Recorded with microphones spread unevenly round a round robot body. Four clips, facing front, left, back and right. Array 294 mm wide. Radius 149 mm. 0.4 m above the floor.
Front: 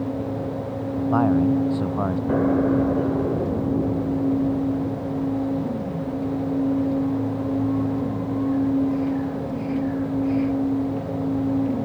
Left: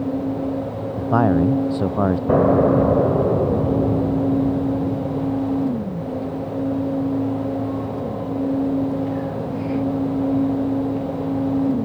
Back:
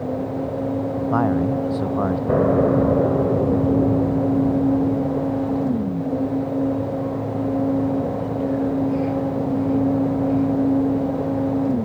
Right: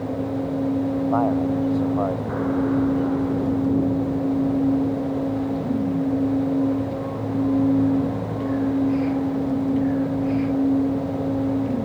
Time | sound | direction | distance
1.0 | a man speaking | 95° left | ?
2.3 | an explosion | 120° left | ?